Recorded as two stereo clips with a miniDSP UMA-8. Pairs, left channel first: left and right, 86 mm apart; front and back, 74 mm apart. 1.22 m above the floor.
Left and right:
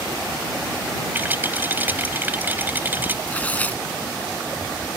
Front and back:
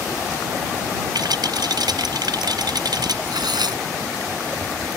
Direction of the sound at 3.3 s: 160° left.